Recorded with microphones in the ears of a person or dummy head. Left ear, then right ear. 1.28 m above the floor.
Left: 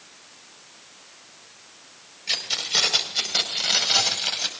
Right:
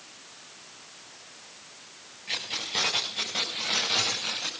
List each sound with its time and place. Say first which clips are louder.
2.3 s keys jangling: left 7 dB; 45° left (ahead or behind), 4.5 m; by 4.5 s 50° left (ahead or behind), 6 m